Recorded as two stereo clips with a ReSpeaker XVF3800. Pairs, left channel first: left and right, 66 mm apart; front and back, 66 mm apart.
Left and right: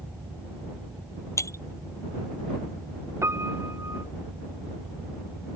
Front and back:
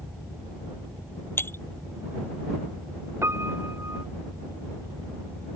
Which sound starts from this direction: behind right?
A piano, at 3.2 s.